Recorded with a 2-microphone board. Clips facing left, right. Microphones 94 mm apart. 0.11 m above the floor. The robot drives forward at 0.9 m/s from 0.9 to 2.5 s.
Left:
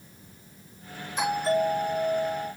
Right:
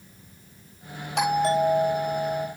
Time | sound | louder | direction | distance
1.2 | a doorbell | right 3 dB | 75° right (ahead or behind) | 8 m